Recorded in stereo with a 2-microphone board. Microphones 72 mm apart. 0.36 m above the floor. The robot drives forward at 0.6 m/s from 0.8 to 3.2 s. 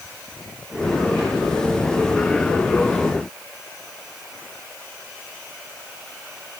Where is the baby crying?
I don't hear a baby crying.